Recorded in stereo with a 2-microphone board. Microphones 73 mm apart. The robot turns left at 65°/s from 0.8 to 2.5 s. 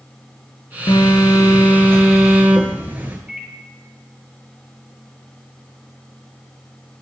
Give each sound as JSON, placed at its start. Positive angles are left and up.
{"t": 0.9, "sound": "a phone buzzing", "azimuth_deg": 80, "distance_m": 0.8}
{"t": 3.3, "sound": "a microwave", "side_deg": -10, "distance_m": 1.1}